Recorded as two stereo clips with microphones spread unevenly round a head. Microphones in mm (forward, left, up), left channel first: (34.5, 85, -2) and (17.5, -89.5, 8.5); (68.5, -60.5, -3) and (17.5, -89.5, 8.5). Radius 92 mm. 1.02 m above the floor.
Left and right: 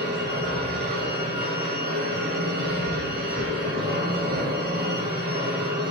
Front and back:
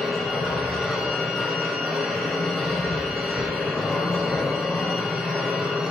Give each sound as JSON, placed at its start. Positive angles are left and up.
{"t": 0.0, "sound": "a machine running", "azimuth_deg": -70, "distance_m": 3.0}